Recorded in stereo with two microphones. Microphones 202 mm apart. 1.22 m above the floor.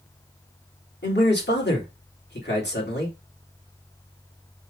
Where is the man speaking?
55° left (ahead or behind), 2.5 m.